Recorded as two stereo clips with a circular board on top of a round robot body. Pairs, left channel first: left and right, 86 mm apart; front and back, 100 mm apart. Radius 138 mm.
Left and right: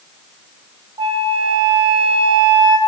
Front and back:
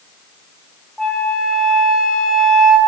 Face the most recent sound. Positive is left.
turn(degrees=-85)